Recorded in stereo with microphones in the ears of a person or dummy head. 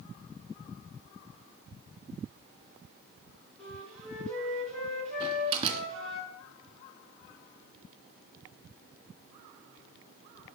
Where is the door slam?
35° right (ahead or behind), 1.7 m.